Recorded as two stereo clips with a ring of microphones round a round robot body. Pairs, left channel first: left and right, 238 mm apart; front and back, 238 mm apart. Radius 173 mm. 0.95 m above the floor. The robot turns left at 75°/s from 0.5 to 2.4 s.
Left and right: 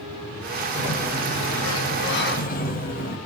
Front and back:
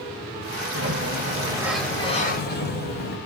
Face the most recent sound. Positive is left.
turn(degrees=40)